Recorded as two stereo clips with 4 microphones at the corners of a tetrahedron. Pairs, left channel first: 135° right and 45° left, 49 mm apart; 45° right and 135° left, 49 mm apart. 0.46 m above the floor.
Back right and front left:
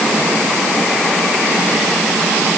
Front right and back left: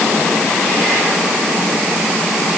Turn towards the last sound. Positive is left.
No sound to turn to.